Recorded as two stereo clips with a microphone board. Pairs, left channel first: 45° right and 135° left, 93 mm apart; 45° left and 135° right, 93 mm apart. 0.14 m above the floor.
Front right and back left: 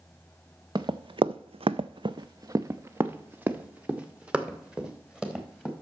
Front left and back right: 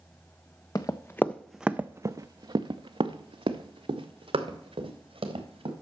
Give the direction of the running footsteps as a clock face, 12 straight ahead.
9 o'clock.